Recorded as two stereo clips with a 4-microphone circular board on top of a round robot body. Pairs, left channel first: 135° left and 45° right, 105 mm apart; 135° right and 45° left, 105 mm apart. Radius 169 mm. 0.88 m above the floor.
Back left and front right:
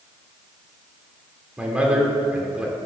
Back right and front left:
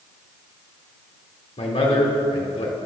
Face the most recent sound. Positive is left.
turn(degrees=-125)